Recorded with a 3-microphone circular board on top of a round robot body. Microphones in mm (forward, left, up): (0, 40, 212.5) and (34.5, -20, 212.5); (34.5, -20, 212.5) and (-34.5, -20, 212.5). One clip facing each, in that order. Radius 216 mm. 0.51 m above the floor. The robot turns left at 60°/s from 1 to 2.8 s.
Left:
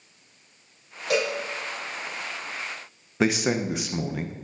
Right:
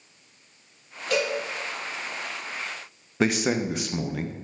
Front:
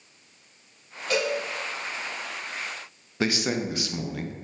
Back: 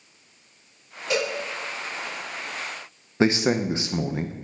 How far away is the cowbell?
About 3 m.